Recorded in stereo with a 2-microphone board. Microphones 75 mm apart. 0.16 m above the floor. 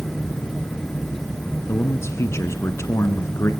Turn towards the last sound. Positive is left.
turn(degrees=40)  # may be behind; listen again after turning